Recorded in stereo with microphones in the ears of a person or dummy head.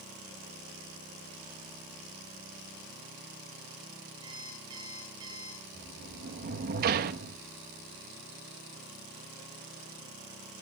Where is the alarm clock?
20° right (ahead or behind), 9.5 m.